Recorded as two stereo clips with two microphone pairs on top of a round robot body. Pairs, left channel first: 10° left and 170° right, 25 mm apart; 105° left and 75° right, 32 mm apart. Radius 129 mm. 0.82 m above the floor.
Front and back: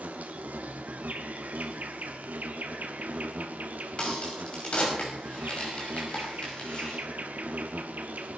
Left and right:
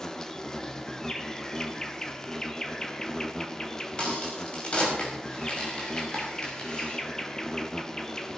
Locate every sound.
0.0 s an insect: straight behind, 1.1 m
4.0 s a crack: 50° left, 6 m